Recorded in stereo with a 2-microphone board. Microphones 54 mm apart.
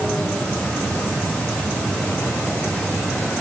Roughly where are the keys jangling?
I don't hear keys jangling.